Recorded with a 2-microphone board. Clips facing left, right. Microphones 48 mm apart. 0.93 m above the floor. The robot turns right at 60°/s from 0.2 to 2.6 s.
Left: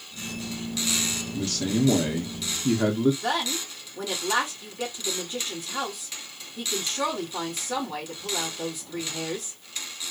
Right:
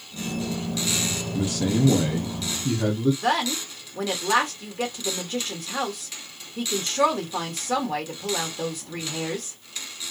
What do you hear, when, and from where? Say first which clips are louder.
1.3 s a man speaking: right 2 dB; 40° right, 0.7 m; by 3.1 s 40° left, 0.7 m
3.2 s a woman speaking: right 4 dB; 55° right (ahead or behind), 1.8 m